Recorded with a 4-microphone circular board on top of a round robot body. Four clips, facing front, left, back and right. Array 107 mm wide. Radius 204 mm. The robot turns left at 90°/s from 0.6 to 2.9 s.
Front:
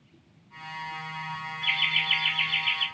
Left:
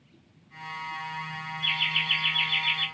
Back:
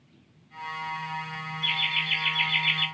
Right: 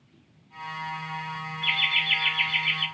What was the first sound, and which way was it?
Laughter, 50° right.